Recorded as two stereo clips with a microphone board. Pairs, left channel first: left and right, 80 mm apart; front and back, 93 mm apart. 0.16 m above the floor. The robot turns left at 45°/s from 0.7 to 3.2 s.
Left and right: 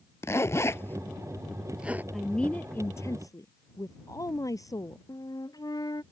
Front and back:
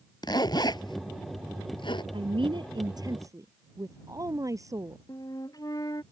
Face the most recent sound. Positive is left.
turn(degrees=50)